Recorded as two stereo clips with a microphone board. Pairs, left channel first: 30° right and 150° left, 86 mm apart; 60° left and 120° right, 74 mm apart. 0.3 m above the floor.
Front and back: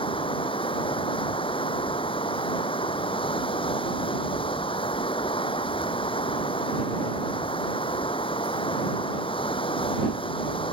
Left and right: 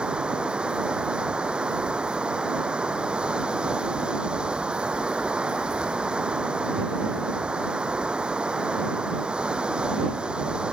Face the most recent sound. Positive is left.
turn(degrees=-40)